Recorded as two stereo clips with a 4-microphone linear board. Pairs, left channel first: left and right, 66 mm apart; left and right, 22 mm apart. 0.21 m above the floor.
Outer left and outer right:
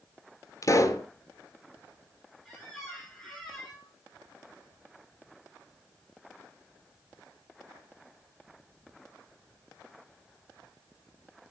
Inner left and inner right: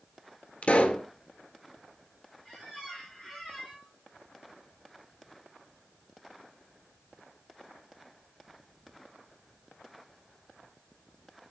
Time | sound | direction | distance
0.6 | a pop | 50° left (ahead or behind) | 1.5 m
2.5 | a squeak | centre (ahead or behind) | 7 m